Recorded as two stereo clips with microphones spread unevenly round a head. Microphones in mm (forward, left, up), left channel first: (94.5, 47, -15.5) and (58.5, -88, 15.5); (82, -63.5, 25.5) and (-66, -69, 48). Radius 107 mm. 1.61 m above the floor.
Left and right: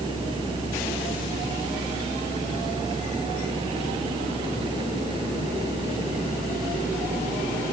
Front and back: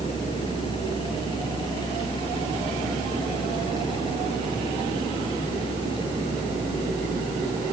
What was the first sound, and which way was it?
A fan, 55° right.